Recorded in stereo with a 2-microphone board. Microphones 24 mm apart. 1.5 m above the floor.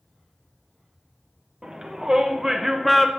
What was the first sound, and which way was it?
A shout, 40° right (ahead or behind).